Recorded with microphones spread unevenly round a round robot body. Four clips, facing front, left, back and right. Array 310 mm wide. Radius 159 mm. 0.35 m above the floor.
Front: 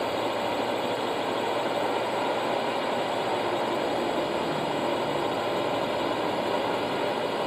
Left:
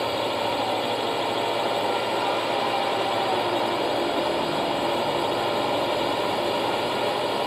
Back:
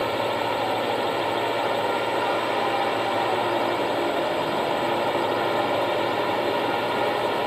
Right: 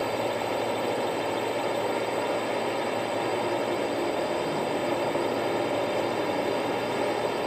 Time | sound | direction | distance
0.0 | a drone | 175° right | ?